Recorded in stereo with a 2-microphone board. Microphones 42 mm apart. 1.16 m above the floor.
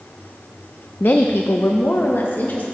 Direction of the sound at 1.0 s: 50° left (ahead or behind).